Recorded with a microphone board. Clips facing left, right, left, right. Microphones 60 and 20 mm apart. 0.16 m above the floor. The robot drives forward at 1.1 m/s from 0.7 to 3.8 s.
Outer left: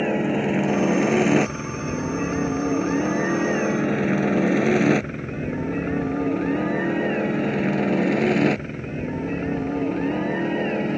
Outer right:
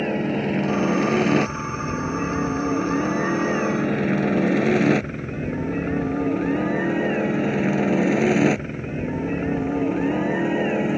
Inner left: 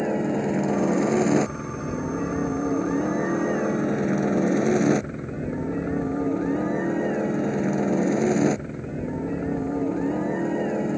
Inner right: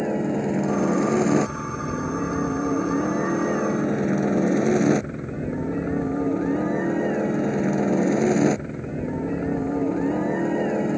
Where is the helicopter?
5° left (ahead or behind); by 11.0 s 10° right (ahead or behind).